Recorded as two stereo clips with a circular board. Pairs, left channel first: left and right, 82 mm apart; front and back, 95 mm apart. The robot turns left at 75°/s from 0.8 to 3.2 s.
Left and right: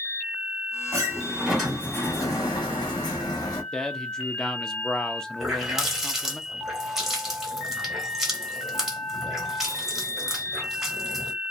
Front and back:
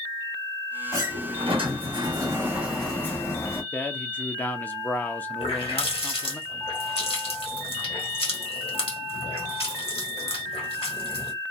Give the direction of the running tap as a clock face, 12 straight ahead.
12 o'clock.